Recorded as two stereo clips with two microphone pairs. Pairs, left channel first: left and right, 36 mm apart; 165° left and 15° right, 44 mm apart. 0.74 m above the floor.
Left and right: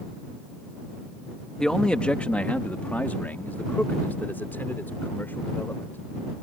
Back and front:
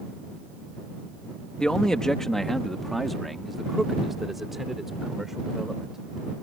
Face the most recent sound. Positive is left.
turn(degrees=65)